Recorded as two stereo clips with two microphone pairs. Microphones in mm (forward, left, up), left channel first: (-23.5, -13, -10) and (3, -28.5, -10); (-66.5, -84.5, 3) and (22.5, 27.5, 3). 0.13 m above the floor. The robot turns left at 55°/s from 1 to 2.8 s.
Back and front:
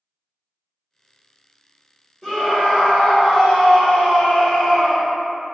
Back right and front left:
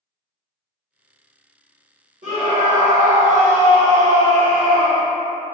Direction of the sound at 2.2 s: 55° left.